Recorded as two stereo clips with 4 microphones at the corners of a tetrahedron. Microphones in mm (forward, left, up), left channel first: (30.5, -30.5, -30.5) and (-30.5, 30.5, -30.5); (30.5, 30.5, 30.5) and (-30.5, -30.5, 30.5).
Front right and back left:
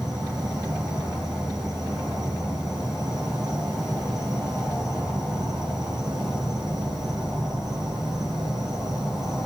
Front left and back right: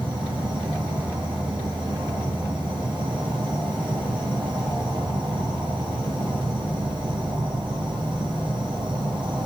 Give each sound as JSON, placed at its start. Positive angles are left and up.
{"t": 0.0, "sound": "an insect", "azimuth_deg": -140, "distance_m": 4.5}